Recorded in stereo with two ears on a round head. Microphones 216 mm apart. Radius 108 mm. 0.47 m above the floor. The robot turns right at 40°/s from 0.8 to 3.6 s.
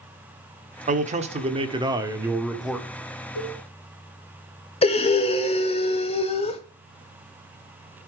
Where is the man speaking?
75° right, 1.2 m; by 2.9 s 5° left, 1.2 m.